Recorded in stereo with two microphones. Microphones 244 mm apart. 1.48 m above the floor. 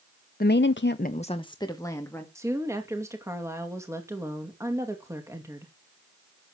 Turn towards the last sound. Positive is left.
turn(degrees=-10)  # may be behind; listen again after turning